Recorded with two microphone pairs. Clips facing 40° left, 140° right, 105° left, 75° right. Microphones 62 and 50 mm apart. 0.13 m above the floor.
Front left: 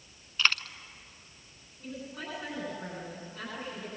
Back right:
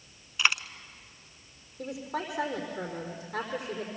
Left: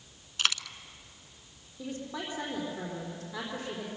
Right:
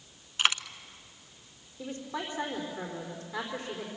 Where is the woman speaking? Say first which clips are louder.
Back right 6 dB, right 1 dB; 165° right, 5 m.